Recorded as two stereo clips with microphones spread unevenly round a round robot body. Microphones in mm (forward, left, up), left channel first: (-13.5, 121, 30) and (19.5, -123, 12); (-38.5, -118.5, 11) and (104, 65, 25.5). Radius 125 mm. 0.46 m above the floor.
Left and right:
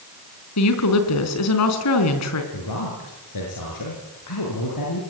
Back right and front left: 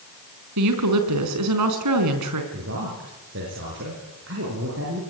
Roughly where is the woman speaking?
Left.